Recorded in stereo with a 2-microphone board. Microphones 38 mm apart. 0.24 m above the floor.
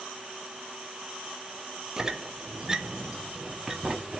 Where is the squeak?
15° right (ahead or behind), 0.6 m.